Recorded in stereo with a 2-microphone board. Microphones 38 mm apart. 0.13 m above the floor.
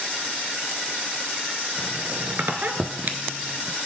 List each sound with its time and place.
1.8 s a squeak: 55° right (ahead or behind), 0.5 m